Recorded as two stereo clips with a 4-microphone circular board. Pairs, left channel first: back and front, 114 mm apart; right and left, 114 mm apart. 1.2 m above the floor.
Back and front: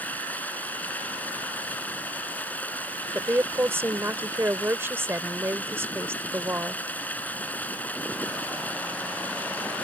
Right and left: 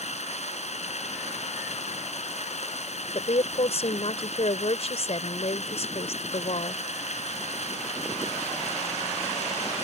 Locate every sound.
0.0 s running water: 100° right
3.1 s a woman speaking: 70° right